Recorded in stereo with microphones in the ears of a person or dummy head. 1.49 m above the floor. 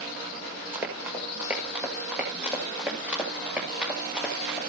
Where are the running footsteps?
5° right (ahead or behind), 5.5 m; by 4.6 s centre (ahead or behind), 8 m.